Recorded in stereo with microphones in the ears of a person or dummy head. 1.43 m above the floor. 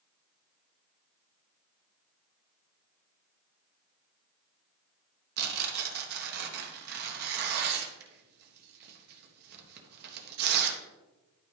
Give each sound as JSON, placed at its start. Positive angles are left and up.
{"t": 5.4, "sound": "tearing paper", "side_deg": -60, "distance_m": 1.3}